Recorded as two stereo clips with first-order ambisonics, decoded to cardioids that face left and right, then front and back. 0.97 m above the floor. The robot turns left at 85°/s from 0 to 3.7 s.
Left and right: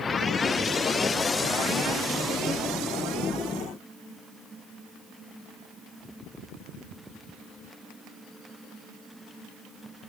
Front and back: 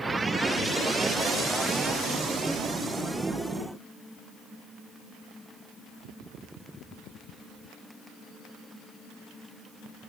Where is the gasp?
I don't hear a gasp.